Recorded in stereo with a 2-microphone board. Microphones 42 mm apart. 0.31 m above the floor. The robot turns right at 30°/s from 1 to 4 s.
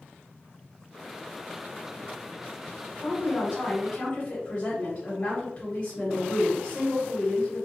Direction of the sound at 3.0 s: 40° left (ahead or behind).